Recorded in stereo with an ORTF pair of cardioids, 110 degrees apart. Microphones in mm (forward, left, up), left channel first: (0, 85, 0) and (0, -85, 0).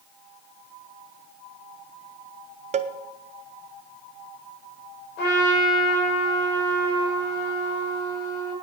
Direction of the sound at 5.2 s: 70° left.